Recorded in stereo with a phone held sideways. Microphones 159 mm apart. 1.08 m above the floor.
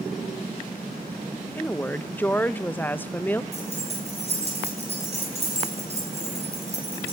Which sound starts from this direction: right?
Keys jangling, at 3.5 s.